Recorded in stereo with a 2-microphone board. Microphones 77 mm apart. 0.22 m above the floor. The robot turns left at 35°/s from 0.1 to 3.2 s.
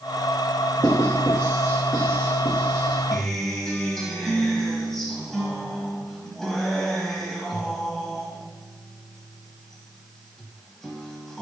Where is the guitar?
5° left (ahead or behind), 1.0 m.